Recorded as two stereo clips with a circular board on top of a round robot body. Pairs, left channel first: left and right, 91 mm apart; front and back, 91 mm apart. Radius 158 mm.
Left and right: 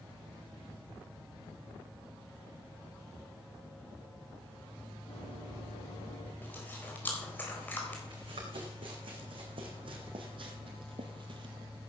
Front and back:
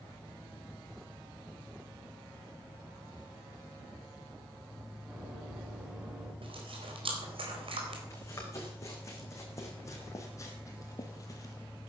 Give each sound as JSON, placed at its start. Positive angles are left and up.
{"t": 5.1, "sound": "running footsteps", "azimuth_deg": 105, "distance_m": 8.5}
{"t": 6.4, "sound": "chewing", "azimuth_deg": 160, "distance_m": 4.0}
{"t": 8.1, "sound": "running footsteps", "azimuth_deg": -60, "distance_m": 4.5}